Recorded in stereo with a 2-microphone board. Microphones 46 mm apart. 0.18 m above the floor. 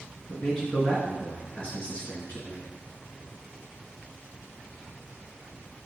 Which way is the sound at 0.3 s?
20° left (ahead or behind).